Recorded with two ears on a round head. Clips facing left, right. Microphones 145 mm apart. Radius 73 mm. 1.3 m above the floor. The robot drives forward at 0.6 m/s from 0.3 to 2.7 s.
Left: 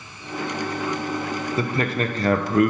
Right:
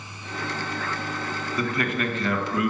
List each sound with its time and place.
1.6 s a man speaking: 25° left (ahead or behind), 1.0 m; by 2.7 s 40° left (ahead or behind), 0.6 m